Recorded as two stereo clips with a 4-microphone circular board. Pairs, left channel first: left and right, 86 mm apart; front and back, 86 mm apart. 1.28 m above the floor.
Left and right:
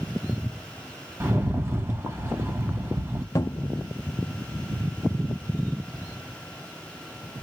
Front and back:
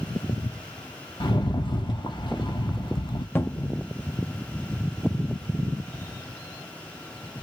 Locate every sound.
1.2 s a rattle: 25° right, 1.0 m
3.4 s a cupboard door: 55° left, 0.7 m